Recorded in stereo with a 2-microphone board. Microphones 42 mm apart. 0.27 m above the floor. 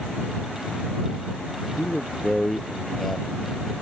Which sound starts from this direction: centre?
A man speaking, at 1.8 s.